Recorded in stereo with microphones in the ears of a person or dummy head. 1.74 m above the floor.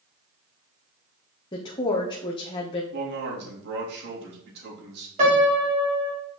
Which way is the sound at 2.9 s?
75° right (ahead or behind).